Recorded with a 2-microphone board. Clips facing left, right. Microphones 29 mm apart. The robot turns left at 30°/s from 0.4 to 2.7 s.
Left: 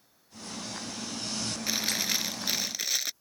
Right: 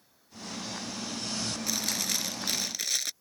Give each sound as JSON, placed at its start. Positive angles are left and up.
{"t": 1.7, "sound": "chewing", "azimuth_deg": 45}